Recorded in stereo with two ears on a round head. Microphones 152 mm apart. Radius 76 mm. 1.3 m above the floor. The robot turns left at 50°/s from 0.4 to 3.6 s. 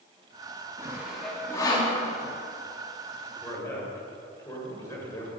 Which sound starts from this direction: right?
Sawing, at 0.8 s.